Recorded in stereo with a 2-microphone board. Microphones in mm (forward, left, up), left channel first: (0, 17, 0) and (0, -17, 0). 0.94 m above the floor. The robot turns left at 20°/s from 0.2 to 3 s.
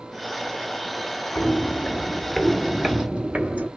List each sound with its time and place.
1.4 s footsteps: 45° left (ahead or behind), 1.3 m; by 3.7 s 45° right (ahead or behind), 1.3 m